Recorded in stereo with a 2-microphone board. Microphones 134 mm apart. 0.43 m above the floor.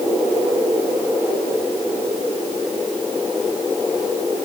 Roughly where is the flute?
I don't hear a flute.